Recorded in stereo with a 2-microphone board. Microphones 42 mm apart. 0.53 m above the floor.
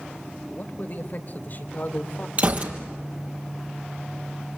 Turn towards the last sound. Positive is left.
turn(degrees=-40)  # may be behind; listen again after turning